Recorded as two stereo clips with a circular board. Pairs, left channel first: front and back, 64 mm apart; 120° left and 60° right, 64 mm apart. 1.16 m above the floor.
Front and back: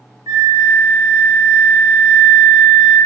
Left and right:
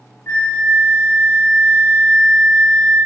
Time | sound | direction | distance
0.3 | a flute | 175° left | 0.5 m